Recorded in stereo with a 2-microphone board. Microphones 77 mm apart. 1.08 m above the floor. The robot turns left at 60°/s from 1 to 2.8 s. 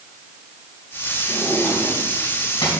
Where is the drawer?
5° right (ahead or behind), 4 m; by 2.7 s 80° left, 4 m.